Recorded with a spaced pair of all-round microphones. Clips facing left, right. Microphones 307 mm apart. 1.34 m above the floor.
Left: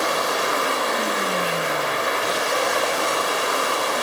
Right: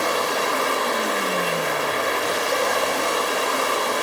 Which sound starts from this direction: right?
Running water, at 0.0 s.